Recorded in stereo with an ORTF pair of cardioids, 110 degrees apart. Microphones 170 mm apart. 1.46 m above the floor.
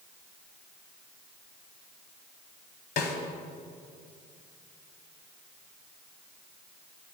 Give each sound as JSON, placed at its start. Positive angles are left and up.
{"t": 3.0, "sound": "a snare drum", "azimuth_deg": 65, "distance_m": 1.1}